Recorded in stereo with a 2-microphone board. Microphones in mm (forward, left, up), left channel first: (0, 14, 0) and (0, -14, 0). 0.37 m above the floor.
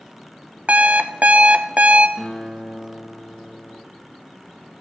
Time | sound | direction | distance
0.7 | an alarm clock | 60° right (ahead or behind) | 1.0 m
2.2 | a guitar | 10° left (ahead or behind) | 4 m